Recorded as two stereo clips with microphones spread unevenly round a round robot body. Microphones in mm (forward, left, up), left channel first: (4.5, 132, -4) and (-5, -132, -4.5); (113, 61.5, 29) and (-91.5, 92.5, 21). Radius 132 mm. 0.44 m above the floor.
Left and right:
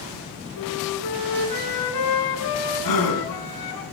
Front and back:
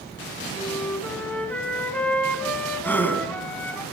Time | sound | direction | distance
0.6 | a flute | 75° left | 1.5 m
2.8 | a gasp | 75° left | 2.5 m